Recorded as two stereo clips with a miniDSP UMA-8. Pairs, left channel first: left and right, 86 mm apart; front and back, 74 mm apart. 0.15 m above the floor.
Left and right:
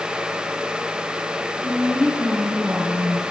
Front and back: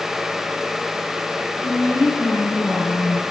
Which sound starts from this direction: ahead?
A woman speaking, at 1.6 s.